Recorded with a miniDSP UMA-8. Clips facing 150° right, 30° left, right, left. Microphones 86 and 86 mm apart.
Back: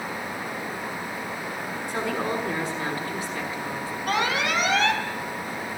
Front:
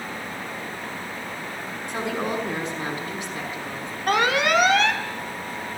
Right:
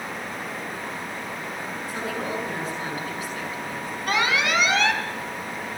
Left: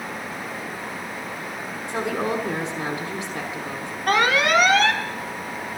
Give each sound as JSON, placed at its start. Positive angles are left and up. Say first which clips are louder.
{"t": 1.9, "sound": "a woman speaking", "louder": "front 1 dB, left 6 dB", "azimuth_deg": 100, "distance_m": 6.0}
{"t": 4.1, "sound": "an alarm", "louder": "front 5 dB, left 5 dB", "azimuth_deg": 55, "distance_m": 2.0}